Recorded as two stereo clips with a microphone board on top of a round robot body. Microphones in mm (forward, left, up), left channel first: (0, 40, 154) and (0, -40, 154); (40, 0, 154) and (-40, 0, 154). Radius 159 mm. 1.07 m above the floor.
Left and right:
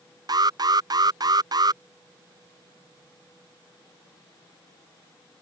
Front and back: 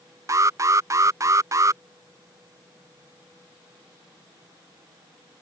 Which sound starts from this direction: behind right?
An alarm, at 0.3 s.